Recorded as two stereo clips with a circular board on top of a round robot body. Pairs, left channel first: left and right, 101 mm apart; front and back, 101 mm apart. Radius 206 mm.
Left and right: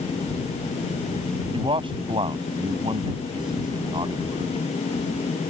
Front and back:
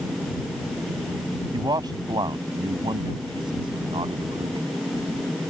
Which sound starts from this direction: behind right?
A man speaking, at 1.5 s.